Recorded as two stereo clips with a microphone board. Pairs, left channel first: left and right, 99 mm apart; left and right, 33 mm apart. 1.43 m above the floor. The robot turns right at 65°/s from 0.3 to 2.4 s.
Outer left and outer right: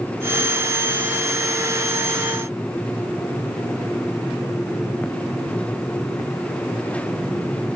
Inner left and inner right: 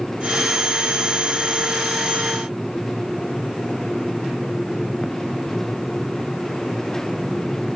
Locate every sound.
Only background noise.